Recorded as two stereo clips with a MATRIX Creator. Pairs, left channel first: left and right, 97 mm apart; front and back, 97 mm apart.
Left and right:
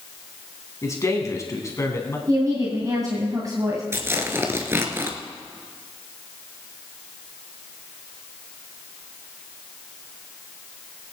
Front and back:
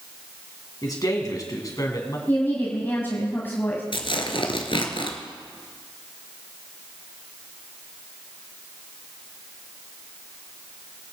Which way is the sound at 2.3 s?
60° right.